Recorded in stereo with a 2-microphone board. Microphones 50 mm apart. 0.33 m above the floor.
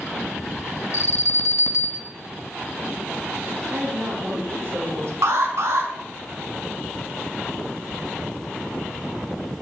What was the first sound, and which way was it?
An alarm, 60° left (ahead or behind).